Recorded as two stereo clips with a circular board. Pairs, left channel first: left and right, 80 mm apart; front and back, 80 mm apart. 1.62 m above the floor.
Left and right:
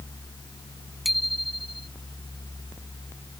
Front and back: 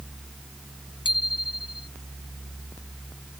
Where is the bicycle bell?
Straight ahead.